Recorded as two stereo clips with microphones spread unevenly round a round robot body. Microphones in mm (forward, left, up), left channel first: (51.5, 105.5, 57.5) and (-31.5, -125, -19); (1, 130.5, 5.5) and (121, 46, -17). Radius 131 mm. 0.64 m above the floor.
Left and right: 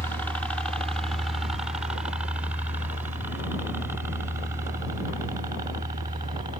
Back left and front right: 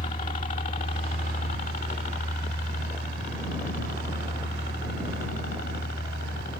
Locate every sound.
0.0 s a helicopter: 170° left; by 6.6 s straight behind